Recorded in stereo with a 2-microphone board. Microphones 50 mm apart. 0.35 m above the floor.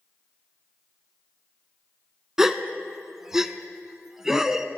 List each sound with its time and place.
2.4 s a gasp: 10° right (ahead or behind), 0.5 m